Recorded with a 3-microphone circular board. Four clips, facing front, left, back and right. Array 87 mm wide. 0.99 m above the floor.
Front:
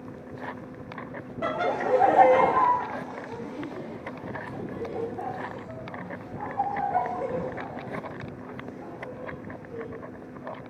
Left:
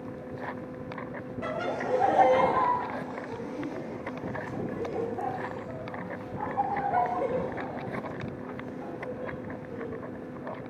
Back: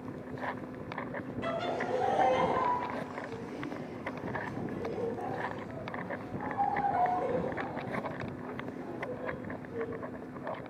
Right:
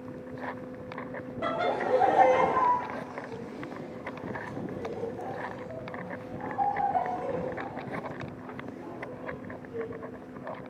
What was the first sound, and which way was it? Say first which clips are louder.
Laughter: right 3 dB, front 8 dB; 20° right.